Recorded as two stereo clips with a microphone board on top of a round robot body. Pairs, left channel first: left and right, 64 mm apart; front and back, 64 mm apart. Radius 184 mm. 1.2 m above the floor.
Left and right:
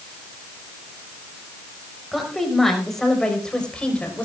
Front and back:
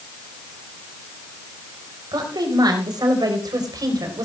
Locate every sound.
2.1 s a woman speaking: straight behind, 4.5 m; by 4.2 s 160° left, 4 m